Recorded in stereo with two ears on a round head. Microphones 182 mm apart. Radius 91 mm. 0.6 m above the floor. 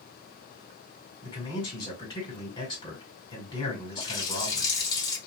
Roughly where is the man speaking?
Left.